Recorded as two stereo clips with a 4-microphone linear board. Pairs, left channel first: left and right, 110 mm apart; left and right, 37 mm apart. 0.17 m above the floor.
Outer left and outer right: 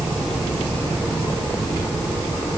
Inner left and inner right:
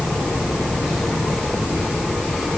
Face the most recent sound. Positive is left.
No sound to turn to.